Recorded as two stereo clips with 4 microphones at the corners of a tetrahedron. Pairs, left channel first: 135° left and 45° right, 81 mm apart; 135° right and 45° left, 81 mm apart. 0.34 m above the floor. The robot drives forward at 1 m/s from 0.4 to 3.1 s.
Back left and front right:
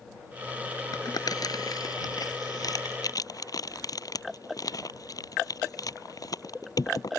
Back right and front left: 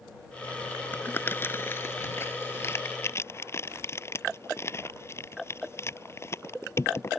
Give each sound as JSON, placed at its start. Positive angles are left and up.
{"t": 0.9, "sound": "crumpling", "azimuth_deg": 165}